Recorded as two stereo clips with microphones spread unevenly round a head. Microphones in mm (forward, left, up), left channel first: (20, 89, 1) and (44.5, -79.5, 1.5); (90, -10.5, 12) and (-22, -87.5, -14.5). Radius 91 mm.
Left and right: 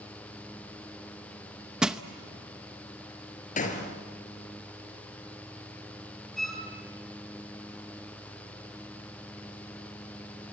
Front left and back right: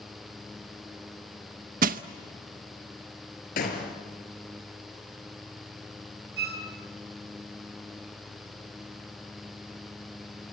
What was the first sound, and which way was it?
Crushing, 170° right.